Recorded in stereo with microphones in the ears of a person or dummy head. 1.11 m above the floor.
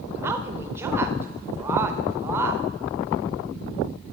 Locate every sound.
0.2 s a woman speaking: 15° right (ahead or behind), 0.6 m